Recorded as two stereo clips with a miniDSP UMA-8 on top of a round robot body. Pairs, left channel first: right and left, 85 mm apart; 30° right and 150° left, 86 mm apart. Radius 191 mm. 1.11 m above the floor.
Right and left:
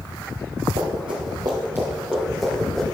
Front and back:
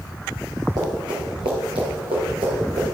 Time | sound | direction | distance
0.8 | running footsteps | 105° left | 1.9 m